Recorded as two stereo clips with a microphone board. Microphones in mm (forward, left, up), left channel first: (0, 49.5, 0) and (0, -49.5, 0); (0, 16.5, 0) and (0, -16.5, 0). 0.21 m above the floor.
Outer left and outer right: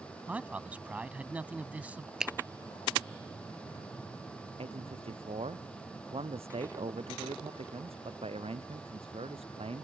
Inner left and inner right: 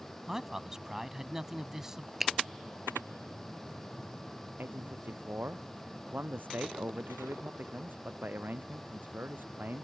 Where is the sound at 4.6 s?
75° right (ahead or behind).